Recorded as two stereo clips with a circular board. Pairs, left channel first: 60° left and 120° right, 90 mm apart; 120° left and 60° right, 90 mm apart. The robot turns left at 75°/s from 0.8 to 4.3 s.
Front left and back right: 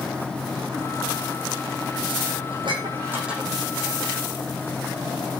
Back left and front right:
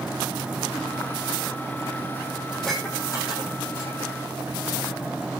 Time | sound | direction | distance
2.5 | dishes clattering | 140° right | 8.5 m